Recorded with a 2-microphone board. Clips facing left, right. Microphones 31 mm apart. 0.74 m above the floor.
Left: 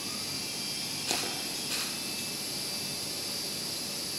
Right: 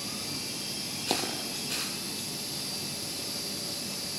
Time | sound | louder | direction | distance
1.1 | a dropped coin | right 3 dB | 25° right (ahead or behind) | 3.5 m